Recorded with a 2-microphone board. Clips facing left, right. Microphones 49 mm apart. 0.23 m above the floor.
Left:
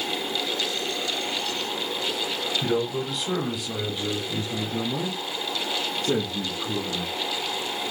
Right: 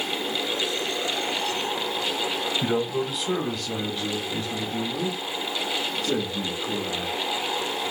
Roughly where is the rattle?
I don't hear a rattle.